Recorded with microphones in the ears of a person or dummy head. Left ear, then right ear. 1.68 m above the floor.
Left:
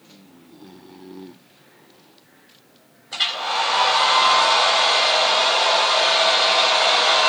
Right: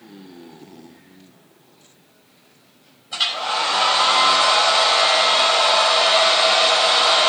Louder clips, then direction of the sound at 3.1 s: Right 1 dB; 15° left (ahead or behind).